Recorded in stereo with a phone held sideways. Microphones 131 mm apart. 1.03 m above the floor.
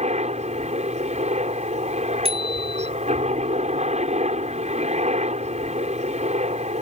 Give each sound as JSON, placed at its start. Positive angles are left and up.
{"t": 0.0, "sound": "a helicopter", "side_deg": -60}
{"t": 2.2, "sound": "a bicycle bell", "side_deg": -50}